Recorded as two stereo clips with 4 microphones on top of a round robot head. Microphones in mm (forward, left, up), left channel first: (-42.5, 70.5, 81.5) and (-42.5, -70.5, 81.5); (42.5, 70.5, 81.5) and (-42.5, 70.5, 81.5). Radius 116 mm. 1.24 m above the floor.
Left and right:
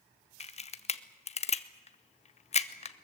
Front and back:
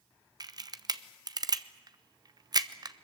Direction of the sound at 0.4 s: 135° left.